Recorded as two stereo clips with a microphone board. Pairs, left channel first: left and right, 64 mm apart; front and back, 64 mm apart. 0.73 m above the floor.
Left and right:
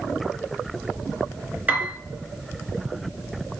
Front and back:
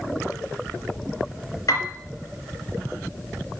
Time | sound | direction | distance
1.7 | a piano | 20° right | 2.5 m